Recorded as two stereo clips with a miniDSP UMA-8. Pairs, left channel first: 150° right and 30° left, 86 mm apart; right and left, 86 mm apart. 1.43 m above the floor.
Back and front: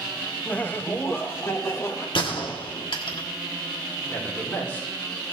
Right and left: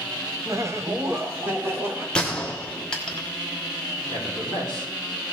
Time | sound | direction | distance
0.5 | laughter | 140° left | 0.7 m
2.1 | a gunshot | 170° right | 1.4 m
4.1 | a man speaking | 140° left | 5.5 m